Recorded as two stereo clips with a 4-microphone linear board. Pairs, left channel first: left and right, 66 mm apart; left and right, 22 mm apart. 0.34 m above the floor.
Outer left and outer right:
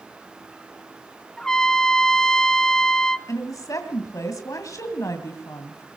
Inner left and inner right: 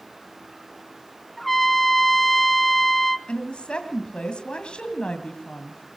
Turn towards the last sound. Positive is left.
turn(degrees=60)  # may be behind; listen again after turning